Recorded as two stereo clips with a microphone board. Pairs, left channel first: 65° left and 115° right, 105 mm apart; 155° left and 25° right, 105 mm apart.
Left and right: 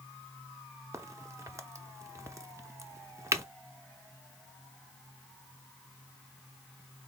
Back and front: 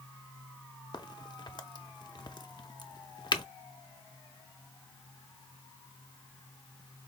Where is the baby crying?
No baby crying in this recording.